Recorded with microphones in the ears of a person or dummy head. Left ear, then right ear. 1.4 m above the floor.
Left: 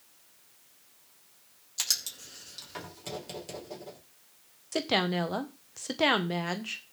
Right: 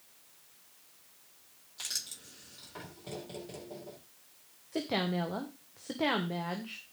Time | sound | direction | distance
1.8 | writing | 80° left | 5 m
4.7 | a woman speaking | 60° left (ahead or behind) | 1.2 m